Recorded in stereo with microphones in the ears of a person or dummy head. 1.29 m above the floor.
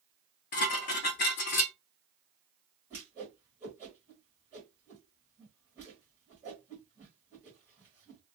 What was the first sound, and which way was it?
Dishes clattering, 40° left (ahead or behind).